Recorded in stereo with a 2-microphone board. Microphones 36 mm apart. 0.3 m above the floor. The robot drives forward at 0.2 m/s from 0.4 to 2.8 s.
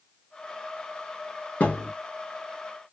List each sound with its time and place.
1.6 s a thud: 50° left (ahead or behind), 2 m